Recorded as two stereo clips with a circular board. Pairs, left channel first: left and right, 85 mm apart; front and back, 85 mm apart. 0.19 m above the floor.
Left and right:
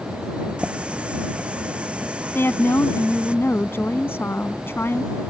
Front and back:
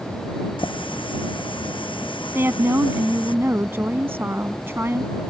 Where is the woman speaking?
135° left.